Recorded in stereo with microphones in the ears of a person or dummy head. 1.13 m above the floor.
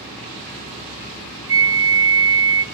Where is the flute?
20° right (ahead or behind), 0.7 m.